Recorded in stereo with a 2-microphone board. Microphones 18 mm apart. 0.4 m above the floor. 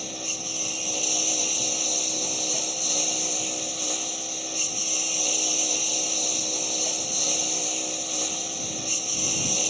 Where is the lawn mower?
5° right (ahead or behind).